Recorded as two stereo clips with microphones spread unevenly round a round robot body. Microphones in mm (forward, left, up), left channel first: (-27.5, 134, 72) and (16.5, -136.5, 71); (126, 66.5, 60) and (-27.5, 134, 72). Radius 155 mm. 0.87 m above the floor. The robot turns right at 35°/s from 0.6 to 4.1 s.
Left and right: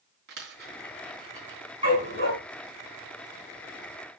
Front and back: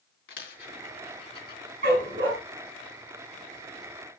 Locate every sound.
0.3 s a dropped coin: 25° right, 3 m; by 1.6 s 10° left, 3 m
1.8 s a dog barking: 155° right, 4 m; by 2.3 s 135° right, 4 m